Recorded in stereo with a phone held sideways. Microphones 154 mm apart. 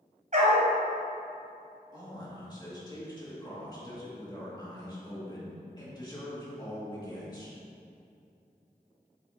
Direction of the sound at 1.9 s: 25° left (ahead or behind).